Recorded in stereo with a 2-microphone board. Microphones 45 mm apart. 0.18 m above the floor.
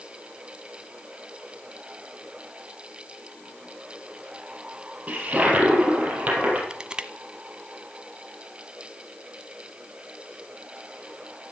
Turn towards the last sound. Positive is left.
turn(degrees=-20)  # may be behind; listen again after turning